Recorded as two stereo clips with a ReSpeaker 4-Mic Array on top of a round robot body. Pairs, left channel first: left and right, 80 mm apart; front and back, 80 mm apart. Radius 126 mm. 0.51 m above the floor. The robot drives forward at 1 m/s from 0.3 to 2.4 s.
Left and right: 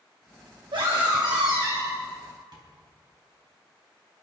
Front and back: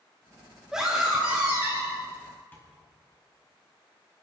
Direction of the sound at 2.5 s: 65° right.